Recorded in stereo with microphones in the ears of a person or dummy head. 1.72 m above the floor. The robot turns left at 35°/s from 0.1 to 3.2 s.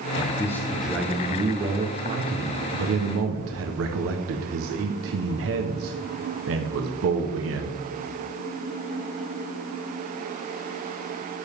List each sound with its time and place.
0.2 s a man speaking: 25° left, 1.1 m; by 7.8 s 85° right, 1.1 m